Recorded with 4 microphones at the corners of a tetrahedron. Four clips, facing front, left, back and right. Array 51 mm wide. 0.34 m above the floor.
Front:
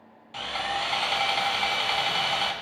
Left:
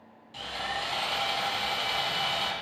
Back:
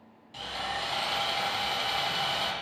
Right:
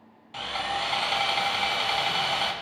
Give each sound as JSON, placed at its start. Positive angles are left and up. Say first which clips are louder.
{"t": 0.3, "sound": "sawing", "louder": "right 4 dB, front 5 dB", "azimuth_deg": -45, "distance_m": 3.0}